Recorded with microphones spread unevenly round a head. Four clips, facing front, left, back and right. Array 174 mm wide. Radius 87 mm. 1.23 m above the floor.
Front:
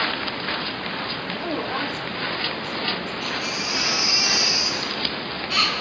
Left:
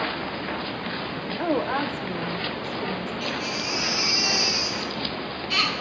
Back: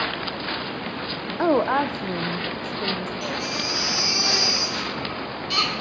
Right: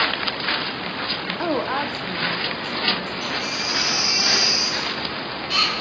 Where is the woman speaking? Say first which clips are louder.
Right 1 dB, back 9 dB; 165° right, 0.8 m; by 3.1 s 175° left, 2 m.